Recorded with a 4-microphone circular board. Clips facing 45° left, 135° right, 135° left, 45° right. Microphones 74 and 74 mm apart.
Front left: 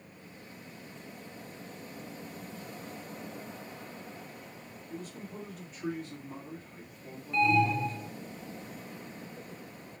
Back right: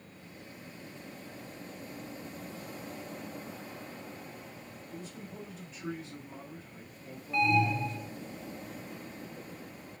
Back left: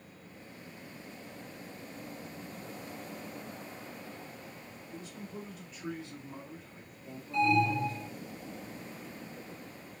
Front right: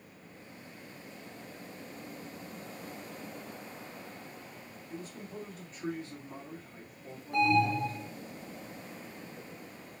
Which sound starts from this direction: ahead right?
An alarm, at 7.3 s.